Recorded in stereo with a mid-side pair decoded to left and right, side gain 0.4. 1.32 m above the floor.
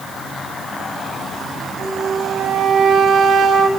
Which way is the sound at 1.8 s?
65° right.